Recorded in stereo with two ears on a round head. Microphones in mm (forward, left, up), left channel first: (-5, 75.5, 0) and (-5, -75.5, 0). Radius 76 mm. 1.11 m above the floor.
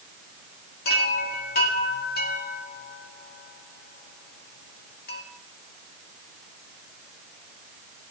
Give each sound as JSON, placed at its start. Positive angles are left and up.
{"t": 0.8, "sound": "a chime", "side_deg": 60, "distance_m": 2.5}